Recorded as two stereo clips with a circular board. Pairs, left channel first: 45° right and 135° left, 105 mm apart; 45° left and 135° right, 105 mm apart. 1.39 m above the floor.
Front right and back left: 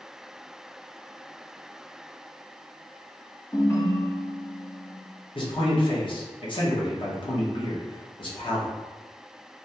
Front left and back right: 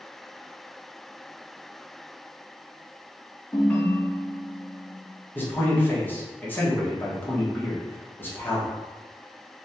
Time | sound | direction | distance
3.5 | a ringtone | 10° right | 0.6 m
5.3 | a man speaking | 25° right | 0.7 m